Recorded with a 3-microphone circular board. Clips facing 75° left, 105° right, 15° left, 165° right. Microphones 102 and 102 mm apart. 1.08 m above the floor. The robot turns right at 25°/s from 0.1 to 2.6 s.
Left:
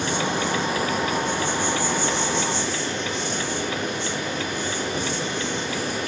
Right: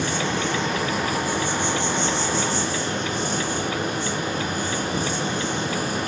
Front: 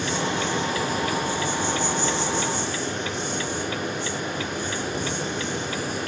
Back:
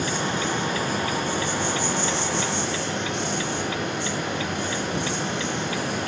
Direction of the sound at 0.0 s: 145° left.